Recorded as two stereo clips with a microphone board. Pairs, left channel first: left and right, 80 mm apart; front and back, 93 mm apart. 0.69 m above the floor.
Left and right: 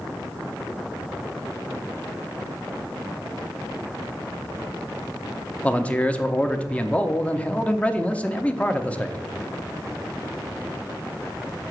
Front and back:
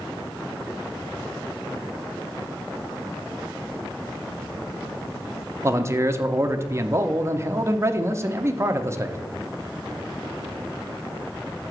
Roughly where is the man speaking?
Behind left.